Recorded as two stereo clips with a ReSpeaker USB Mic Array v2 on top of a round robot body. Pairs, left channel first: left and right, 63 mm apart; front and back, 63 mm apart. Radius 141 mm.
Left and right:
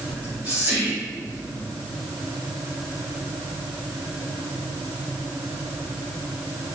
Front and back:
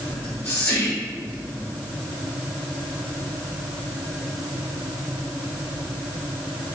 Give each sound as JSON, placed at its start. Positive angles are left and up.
{"t": 0.1, "sound": "whispering", "azimuth_deg": -45, "distance_m": 1.3}